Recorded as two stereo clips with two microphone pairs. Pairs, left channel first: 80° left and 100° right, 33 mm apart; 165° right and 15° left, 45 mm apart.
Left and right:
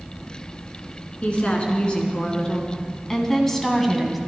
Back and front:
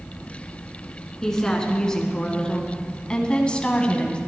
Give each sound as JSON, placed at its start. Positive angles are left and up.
{"t": 1.2, "sound": "a woman speaking", "azimuth_deg": 120, "distance_m": 2.0}